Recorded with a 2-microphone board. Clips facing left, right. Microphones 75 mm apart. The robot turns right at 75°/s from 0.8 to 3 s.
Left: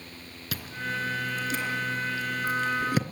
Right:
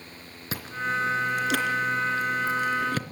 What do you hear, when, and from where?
0.5 s chewing: 30° right (ahead or behind), 2.5 m; by 3.0 s 15° left (ahead or behind), 2.5 m